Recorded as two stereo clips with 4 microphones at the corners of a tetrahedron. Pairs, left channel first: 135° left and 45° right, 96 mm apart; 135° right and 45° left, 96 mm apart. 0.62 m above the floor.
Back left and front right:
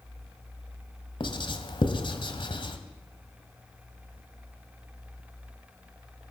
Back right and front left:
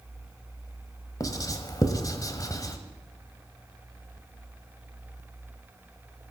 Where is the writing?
170° left, 1.2 m.